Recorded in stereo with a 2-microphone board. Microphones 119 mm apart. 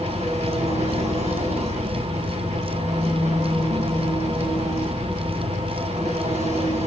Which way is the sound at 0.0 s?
75° right (ahead or behind).